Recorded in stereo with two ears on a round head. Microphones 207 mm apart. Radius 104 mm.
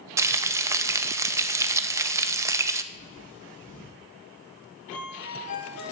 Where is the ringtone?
55° left (ahead or behind), 4.5 m.